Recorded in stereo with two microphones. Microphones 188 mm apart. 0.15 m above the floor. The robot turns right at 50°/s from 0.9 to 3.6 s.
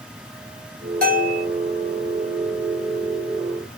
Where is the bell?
55° right (ahead or behind), 1.5 m; by 1.4 s 40° right (ahead or behind), 1.5 m.